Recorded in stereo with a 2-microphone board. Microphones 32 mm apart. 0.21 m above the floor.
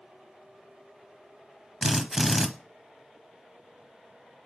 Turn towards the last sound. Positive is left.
turn(degrees=-5)  # may be behind; listen again after turning